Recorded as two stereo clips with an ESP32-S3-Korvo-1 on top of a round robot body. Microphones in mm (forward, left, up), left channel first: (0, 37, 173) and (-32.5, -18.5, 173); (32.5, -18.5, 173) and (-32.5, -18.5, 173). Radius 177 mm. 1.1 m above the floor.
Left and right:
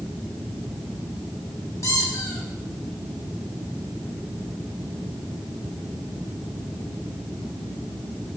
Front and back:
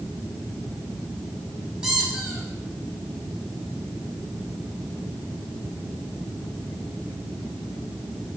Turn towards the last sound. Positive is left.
turn(degrees=105)